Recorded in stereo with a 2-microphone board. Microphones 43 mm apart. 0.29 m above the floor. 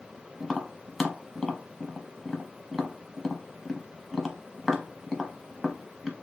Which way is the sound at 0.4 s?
Centre (ahead or behind).